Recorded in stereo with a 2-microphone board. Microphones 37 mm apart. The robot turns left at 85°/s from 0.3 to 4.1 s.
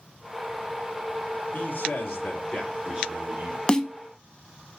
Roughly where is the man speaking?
Left.